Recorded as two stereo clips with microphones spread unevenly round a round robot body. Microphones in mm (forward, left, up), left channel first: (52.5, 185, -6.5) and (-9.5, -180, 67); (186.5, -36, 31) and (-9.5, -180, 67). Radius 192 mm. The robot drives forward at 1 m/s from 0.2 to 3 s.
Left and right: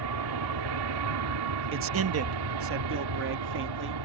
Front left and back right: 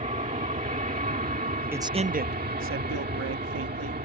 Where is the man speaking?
55° right; by 4.0 s 160° right.